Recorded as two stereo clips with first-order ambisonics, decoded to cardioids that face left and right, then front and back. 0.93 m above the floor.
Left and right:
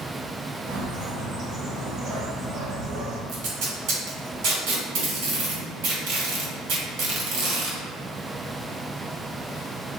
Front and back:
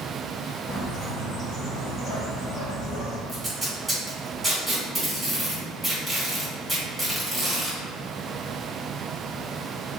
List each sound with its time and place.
0.7 s a bird: 55° right, 1.0 m
3.3 s tape being pulled: 90° right, 1.8 m